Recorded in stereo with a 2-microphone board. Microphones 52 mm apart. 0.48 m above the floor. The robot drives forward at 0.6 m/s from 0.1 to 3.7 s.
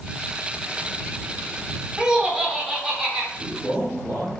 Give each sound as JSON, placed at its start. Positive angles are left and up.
{"t": 2.0, "sound": "laughter", "side_deg": -15, "distance_m": 0.9}
{"t": 3.4, "sound": "a man speaking", "side_deg": -25, "distance_m": 1.4}